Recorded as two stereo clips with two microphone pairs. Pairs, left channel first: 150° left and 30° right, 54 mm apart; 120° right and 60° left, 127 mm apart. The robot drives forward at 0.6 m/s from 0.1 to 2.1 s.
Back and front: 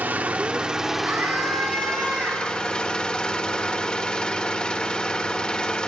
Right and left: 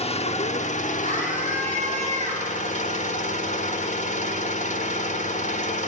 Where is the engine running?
85° right, 1.1 m; by 5.9 s 135° right, 1.6 m.